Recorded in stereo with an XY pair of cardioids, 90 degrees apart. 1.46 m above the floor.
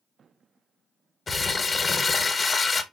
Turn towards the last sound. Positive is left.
turn(degrees=35)